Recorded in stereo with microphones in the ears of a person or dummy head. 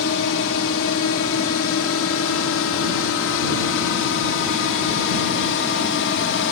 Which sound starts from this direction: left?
A drone, at 0.0 s.